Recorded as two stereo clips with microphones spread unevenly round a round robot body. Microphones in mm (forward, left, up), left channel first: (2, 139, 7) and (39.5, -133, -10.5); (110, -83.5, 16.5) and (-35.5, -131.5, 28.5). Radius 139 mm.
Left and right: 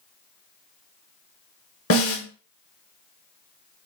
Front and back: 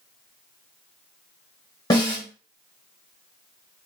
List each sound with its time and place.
1.9 s a snare drum: 75° left, 1.1 m